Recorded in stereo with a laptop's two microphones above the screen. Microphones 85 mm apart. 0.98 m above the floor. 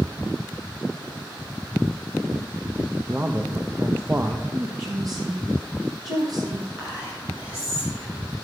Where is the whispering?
20° right (ahead or behind), 6 m.